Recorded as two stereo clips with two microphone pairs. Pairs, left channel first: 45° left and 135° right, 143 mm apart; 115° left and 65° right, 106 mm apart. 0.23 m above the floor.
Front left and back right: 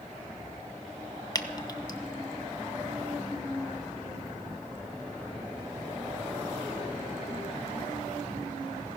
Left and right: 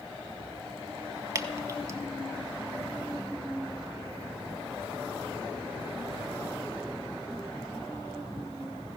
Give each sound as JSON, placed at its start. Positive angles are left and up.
{"t": 1.4, "sound": "dripping", "azimuth_deg": -10, "distance_m": 0.9}